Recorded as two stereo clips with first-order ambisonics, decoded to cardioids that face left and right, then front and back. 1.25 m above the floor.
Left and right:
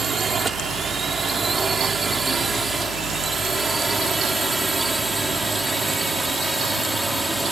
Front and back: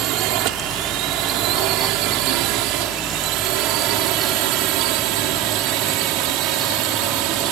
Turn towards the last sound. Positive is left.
turn(degrees=-175)